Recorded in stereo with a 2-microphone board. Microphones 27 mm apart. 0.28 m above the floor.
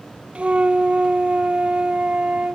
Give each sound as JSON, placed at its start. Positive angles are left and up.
{"t": 0.3, "sound": "a flute", "side_deg": -50}